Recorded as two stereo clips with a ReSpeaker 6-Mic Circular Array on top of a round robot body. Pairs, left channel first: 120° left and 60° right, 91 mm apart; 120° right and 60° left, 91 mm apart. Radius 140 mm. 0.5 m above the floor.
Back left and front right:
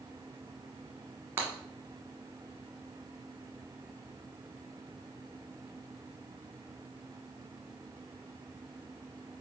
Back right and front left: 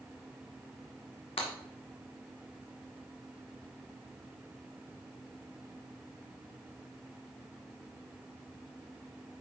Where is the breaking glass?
125° right, 1.6 m.